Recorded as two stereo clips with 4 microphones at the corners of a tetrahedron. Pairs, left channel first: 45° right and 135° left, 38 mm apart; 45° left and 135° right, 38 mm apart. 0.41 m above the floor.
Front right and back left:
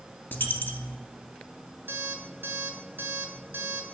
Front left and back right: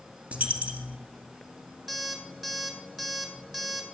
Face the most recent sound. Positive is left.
turn(degrees=150)